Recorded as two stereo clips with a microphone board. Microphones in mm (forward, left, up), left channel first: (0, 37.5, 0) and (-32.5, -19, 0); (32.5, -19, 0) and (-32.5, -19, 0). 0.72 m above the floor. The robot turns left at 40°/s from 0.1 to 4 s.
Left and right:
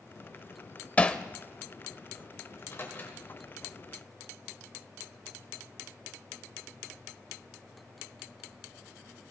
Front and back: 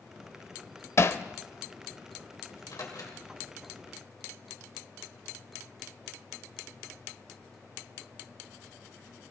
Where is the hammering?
5° left, 0.5 m; by 1.2 s 5° right, 0.5 m.